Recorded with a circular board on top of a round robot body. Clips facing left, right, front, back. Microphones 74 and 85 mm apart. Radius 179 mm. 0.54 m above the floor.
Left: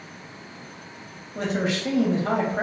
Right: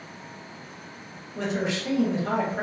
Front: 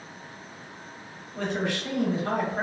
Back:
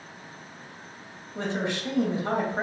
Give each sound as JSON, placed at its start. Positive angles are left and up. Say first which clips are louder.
{"t": 1.4, "sound": "a man speaking", "louder": "left 2 dB, front 1 dB", "azimuth_deg": 115, "distance_m": 1.1}